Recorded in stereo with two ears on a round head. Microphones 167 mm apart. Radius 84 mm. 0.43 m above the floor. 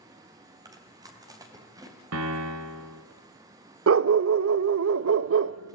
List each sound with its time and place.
0.7 s chewing: 20° right (ahead or behind), 3 m
2.1 s a piano: 85° right, 2 m
3.9 s a dog barking: 75° right (ahead or behind), 0.5 m